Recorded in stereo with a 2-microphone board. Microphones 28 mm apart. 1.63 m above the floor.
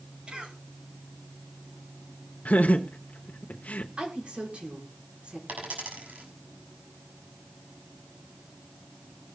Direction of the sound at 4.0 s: 40° right (ahead or behind).